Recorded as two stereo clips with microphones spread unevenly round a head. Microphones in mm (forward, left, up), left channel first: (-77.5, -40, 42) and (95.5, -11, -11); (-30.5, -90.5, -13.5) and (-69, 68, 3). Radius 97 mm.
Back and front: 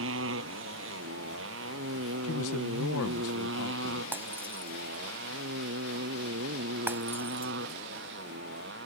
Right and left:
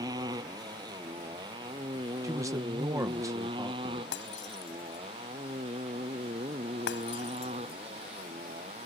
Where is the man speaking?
175° left.